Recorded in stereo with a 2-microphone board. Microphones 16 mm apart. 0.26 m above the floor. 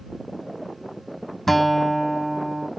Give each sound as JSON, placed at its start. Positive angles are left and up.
{"t": 1.5, "sound": "a guitar", "side_deg": 15}